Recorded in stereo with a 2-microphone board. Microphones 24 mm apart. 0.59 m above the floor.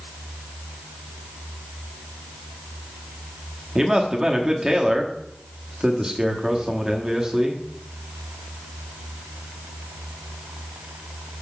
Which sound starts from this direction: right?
A man speaking, at 3.8 s.